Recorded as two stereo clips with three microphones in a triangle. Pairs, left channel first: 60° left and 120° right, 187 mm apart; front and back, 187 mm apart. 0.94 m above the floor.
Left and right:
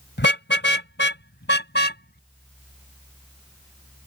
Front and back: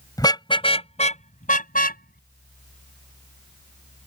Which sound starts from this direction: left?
A car horn, at 0.2 s.